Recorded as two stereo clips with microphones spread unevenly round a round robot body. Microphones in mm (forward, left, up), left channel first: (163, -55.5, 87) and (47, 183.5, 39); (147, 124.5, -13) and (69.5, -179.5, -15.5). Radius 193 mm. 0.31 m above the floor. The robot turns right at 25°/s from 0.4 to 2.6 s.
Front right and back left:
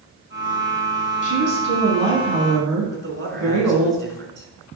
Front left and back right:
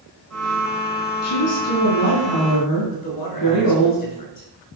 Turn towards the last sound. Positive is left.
turn(degrees=75)